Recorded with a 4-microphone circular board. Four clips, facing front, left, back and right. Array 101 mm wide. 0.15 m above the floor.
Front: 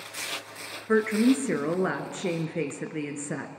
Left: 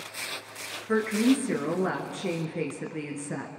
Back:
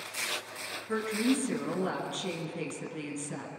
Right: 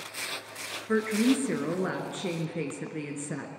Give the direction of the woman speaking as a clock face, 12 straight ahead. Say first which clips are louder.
Left 1 dB, front 7 dB; 12 o'clock.